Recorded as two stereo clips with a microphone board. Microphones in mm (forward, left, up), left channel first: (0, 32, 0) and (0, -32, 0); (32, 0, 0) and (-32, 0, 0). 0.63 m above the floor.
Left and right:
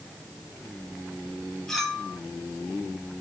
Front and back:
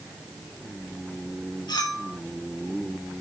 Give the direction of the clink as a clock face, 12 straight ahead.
12 o'clock.